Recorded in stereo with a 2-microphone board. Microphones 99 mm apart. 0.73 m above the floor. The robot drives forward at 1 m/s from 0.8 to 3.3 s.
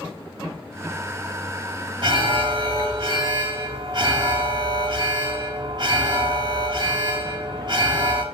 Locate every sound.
2.0 s an alarm: 50° right (ahead or behind), 1.9 m